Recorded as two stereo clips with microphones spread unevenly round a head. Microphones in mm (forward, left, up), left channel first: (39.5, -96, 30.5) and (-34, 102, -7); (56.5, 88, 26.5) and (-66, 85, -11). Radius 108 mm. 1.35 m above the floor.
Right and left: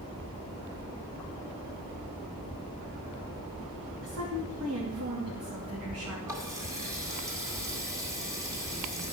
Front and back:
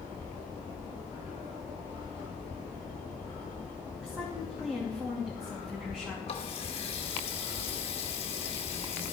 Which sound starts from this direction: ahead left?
A running tap, at 6.3 s.